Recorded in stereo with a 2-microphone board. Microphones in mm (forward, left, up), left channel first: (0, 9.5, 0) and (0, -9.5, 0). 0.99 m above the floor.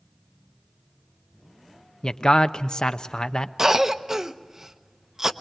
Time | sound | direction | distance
2.0 | a man speaking | 50° left (ahead or behind) | 0.8 m
3.6 | a cough | 25° right (ahead or behind) | 0.8 m